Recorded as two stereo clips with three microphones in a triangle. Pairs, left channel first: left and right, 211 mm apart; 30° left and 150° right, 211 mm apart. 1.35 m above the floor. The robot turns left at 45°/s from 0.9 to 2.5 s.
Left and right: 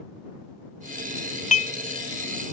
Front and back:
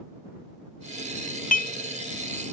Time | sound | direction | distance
1.5 | dishes clattering | 55° left | ?